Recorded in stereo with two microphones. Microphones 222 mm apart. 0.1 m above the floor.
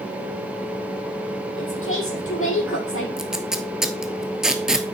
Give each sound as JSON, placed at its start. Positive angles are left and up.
{"t": 1.6, "sound": "a woman speaking", "side_deg": 65, "distance_m": 4.5}
{"t": 3.2, "sound": "tape being pulled", "side_deg": 0, "distance_m": 1.1}